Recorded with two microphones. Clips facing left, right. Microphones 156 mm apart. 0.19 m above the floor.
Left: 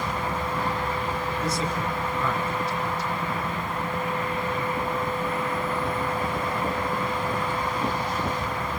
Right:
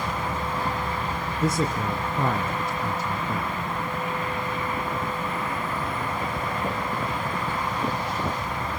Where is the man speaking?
50° right (ahead or behind), 1.7 m.